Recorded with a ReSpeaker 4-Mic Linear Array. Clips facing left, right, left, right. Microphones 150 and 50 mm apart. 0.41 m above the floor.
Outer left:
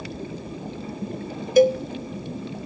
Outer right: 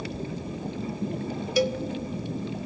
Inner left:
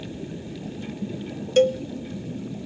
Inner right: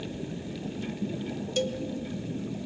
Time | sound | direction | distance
1.6 | a cowbell | 45° left (ahead or behind) | 0.7 m